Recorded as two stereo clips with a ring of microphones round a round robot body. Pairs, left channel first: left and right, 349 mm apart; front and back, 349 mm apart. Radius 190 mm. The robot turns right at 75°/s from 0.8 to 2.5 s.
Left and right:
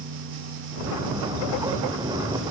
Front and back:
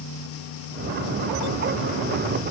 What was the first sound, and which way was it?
Only background noise.